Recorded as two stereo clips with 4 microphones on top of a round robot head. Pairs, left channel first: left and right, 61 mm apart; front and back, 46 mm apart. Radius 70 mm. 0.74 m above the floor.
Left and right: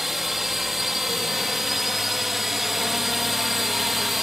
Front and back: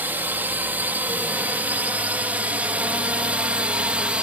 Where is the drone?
175° right; by 4.2 s 170° right.